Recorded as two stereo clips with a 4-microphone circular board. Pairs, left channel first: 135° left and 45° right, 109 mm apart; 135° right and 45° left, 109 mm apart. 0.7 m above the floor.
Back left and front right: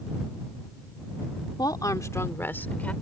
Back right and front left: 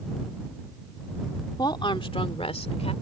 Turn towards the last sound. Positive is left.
turn(degrees=-145)